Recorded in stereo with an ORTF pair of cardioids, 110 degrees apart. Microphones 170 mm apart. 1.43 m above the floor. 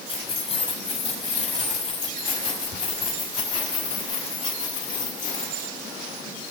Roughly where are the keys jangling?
Ahead left.